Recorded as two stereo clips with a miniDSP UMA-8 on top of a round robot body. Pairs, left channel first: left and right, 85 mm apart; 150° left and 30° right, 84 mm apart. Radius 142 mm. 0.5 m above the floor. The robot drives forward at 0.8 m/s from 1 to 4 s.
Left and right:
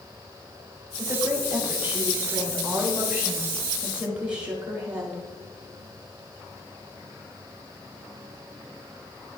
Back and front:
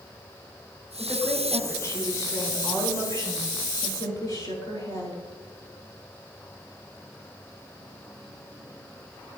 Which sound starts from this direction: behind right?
A woman speaking, at 1.0 s.